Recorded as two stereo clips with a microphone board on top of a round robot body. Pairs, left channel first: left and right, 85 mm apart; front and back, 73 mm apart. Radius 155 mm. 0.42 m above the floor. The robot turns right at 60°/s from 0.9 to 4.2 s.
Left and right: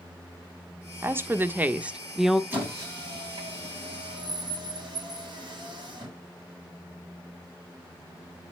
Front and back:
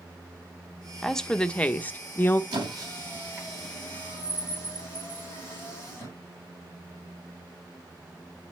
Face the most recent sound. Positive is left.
turn(degrees=-55)